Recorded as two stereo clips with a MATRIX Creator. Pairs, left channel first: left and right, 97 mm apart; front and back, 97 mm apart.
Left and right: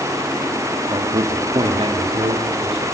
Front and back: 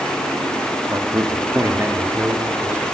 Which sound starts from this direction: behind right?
A man speaking, at 0.9 s.